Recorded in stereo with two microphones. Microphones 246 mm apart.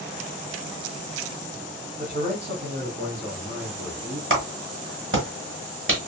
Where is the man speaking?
30° right (ahead or behind), 1.0 m; by 4.2 s 65° right (ahead or behind), 2 m.